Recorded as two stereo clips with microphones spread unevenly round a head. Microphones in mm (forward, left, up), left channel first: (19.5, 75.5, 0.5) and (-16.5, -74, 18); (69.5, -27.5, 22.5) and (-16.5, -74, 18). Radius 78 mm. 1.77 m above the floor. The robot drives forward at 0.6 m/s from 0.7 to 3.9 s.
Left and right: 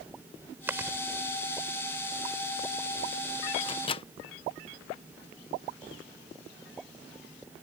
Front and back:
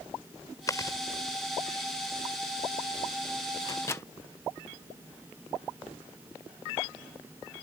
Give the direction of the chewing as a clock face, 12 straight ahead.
1 o'clock.